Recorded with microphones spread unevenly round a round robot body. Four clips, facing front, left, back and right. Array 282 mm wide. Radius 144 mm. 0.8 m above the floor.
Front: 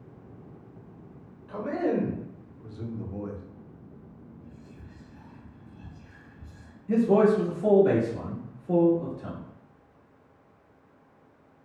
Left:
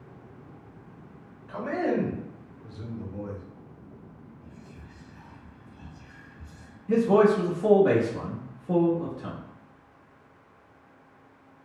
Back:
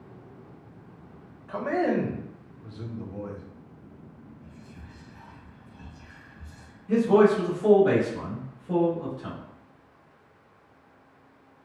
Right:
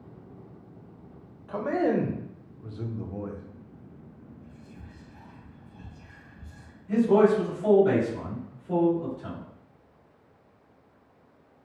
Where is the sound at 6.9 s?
55° left, 1.3 m.